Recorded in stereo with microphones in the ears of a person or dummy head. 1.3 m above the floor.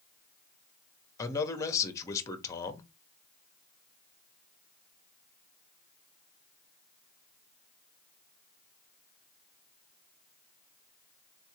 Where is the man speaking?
15° left (ahead or behind), 1.0 m.